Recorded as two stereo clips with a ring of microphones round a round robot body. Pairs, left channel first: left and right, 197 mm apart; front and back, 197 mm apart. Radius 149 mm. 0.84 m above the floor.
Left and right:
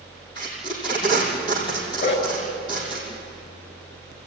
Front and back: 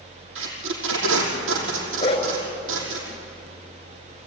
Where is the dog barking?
65° left, 5 m.